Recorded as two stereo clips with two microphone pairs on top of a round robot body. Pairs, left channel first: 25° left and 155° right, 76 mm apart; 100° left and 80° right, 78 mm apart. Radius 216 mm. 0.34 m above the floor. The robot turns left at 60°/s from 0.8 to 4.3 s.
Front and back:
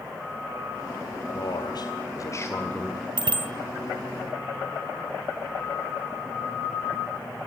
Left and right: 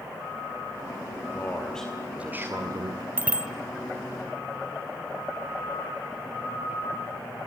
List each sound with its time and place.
1.3 s a man speaking: 40° left, 2.5 m; by 3.1 s 65° right, 2.5 m
3.2 s a bicycle bell: 145° right, 2.5 m; by 3.5 s 165° right, 2.5 m